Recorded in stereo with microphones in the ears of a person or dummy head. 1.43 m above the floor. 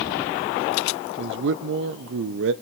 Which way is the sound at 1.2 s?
70° right (ahead or behind).